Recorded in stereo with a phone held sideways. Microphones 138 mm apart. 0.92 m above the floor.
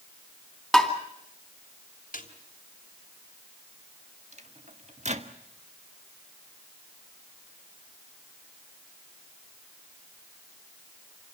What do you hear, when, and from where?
0.7 s tapping: centre (ahead or behind), 3.5 m
2.1 s a snare drum: 85° left, 3 m
4.3 s a microwave: 55° right (ahead or behind), 1.6 m